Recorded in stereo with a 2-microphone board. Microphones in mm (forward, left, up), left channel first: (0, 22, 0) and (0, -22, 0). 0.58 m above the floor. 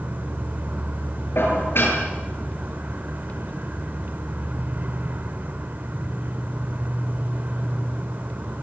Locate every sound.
0.0 s an insect: 45° right (ahead or behind), 1.2 m
1.4 s dishes clattering: 60° left (ahead or behind), 7 m